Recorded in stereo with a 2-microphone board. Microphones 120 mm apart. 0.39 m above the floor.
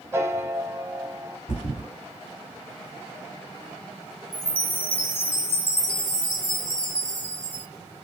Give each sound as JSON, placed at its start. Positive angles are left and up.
{"t": 0.1, "sound": "a piano", "side_deg": -25, "distance_m": 0.6}
{"t": 1.5, "sound": "a thud", "side_deg": 85, "distance_m": 2.5}
{"t": 4.3, "sound": "a chime", "side_deg": 50, "distance_m": 1.3}